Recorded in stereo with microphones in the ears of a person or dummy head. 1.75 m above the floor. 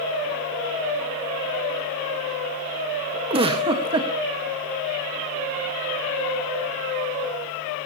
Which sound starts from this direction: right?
A giggle, at 3.3 s.